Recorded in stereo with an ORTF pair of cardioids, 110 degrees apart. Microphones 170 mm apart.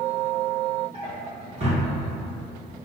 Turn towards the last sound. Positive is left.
turn(degrees=-35)